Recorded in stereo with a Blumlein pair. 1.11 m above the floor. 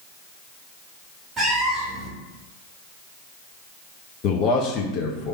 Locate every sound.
1.4 s a cat meowing: 15° right, 1.2 m
4.2 s a man speaking: 35° left, 0.7 m